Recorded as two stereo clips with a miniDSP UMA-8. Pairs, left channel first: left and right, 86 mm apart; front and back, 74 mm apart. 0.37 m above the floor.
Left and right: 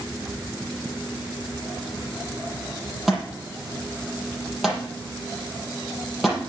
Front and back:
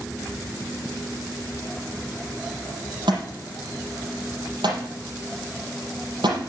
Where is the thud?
Straight behind, 5.5 m.